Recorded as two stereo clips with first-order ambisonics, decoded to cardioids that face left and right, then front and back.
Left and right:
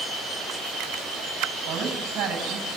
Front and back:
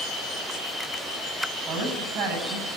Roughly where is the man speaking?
Behind right.